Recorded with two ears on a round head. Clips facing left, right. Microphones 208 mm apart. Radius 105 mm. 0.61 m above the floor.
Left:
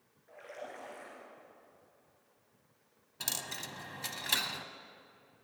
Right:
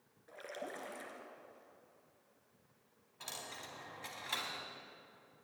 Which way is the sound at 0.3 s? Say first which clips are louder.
Even; 55° right (ahead or behind).